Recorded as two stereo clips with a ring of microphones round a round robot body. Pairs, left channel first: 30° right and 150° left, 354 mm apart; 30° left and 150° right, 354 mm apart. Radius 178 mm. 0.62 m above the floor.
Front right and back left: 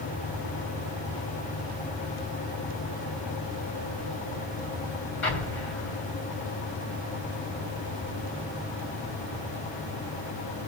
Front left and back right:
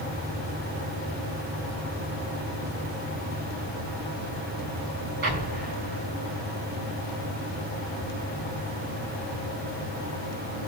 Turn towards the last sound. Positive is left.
turn(degrees=-85)